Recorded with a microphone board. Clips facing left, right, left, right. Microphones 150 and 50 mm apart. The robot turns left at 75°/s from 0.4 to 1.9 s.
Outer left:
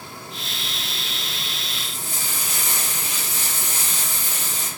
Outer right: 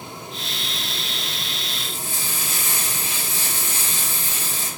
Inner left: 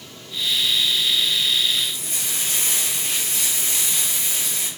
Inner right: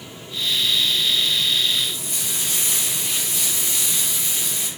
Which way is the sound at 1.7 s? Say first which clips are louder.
Outer right 2 dB, even; 25° left (ahead or behind).